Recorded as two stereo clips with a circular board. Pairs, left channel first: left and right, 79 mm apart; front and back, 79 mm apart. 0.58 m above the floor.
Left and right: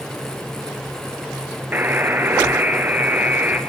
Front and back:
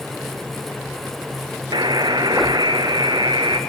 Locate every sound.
1.7 s a buzzer: 155° right, 2 m